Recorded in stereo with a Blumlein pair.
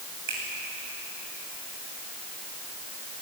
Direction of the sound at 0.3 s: 55° right.